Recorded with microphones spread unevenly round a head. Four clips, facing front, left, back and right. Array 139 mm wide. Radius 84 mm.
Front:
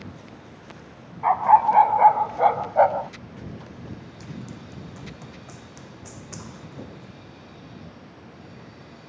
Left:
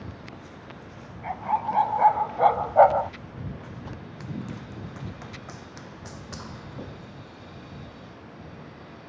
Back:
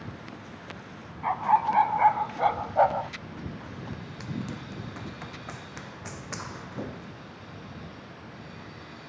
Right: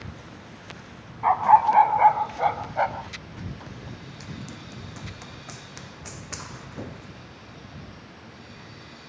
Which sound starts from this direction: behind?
Running footsteps, at 4.2 s.